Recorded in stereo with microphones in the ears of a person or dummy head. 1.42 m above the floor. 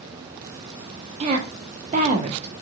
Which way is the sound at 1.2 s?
35° right (ahead or behind).